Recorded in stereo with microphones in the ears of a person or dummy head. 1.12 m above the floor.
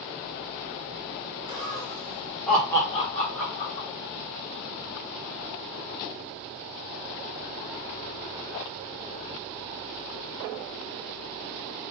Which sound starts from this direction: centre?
Laughter, at 1.5 s.